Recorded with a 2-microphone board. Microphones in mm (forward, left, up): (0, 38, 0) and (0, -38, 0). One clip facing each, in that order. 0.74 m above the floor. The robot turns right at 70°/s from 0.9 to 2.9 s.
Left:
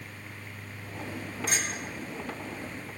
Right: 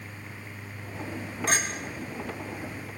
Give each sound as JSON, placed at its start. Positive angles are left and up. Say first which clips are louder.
{"t": 1.5, "sound": "a clink", "louder": "right 5 dB", "side_deg": -60, "distance_m": 2.5}